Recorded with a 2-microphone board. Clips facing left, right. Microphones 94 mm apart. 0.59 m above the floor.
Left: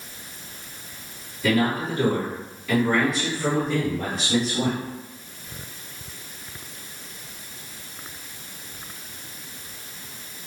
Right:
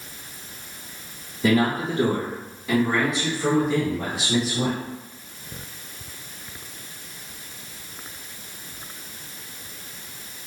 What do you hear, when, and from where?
1.4 s a man speaking: 35° right (ahead or behind), 1.2 m; by 4.8 s 10° right (ahead or behind), 2.5 m